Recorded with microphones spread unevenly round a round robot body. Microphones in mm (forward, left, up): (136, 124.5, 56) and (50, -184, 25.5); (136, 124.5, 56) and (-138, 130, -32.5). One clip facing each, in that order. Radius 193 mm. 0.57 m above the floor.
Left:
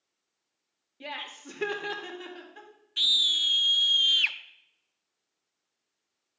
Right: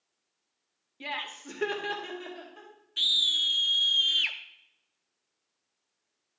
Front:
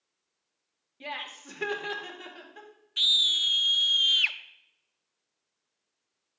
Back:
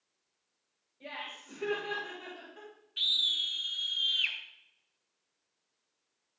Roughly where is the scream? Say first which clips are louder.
Left 1 dB, front 6 dB; ahead.